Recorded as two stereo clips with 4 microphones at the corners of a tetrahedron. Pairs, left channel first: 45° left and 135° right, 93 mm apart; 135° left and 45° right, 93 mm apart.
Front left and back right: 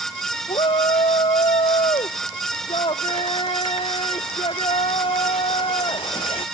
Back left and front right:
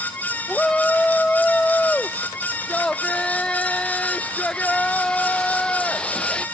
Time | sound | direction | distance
0.5 | a shout | 55° left | ?